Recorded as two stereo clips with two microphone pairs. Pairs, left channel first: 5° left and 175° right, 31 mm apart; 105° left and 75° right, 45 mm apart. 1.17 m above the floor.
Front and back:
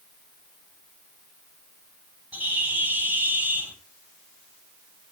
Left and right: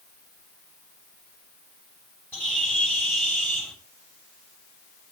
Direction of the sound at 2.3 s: 165° left.